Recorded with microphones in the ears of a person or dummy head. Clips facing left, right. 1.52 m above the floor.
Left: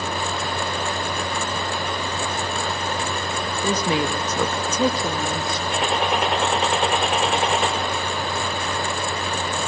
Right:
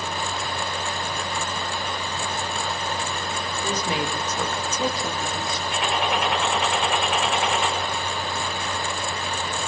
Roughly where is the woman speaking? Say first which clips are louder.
Left 5 dB; left.